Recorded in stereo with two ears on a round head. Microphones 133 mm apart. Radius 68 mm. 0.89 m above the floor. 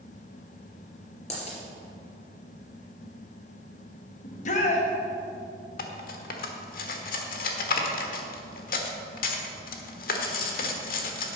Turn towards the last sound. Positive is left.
turn(degrees=70)  # may be behind; listen again after turning